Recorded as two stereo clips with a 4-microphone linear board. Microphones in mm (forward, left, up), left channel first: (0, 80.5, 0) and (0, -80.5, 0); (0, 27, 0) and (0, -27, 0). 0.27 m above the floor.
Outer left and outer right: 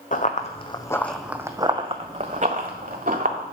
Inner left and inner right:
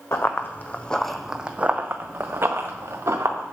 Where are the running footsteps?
55° left (ahead or behind), 1.0 m; by 3.5 s 65° right (ahead or behind), 2 m.